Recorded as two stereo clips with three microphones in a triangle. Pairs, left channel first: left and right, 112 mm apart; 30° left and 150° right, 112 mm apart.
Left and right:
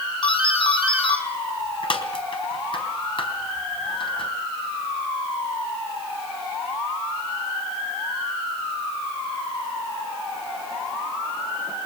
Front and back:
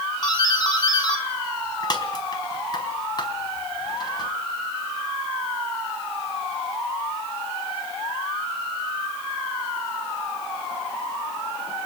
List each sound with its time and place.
0.2 s a doorbell: 70° left, 3.5 m